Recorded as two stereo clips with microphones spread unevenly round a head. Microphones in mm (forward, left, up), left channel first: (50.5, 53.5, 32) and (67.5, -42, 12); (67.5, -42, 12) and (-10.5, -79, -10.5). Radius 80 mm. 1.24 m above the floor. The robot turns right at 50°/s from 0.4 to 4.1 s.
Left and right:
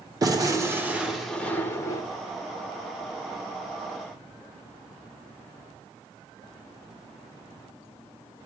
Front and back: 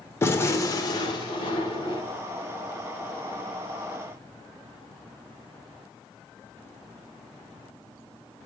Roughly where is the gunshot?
Ahead right.